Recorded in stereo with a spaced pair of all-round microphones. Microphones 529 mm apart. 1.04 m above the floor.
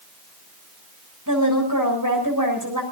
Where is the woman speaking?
35° right (ahead or behind), 6.5 m.